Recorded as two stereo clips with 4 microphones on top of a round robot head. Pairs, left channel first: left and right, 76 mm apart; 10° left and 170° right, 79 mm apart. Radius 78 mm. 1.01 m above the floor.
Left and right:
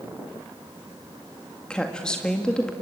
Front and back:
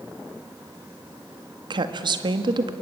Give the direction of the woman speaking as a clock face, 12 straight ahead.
6 o'clock.